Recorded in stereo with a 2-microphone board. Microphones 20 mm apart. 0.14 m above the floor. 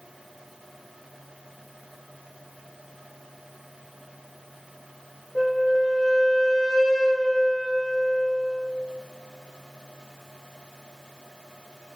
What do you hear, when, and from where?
5.3 s a flute: 50° left (ahead or behind), 3 m